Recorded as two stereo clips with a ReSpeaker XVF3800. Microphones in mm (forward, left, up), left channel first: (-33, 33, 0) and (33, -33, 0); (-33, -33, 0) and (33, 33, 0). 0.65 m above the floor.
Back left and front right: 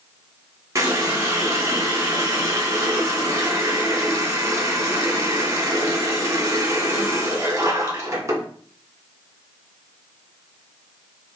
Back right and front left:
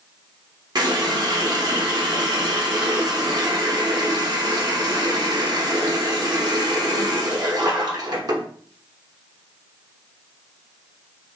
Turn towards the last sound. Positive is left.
turn(degrees=10)